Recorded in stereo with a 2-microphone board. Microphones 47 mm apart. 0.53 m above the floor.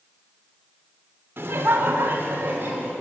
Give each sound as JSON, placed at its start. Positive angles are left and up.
{"t": 1.4, "sound": "laughter", "side_deg": -55, "distance_m": 1.1}